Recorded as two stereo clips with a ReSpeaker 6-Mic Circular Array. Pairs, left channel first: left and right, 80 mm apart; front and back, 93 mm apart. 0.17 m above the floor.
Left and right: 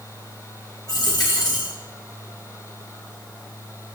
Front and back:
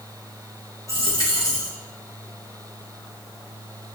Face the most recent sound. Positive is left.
turn(degrees=55)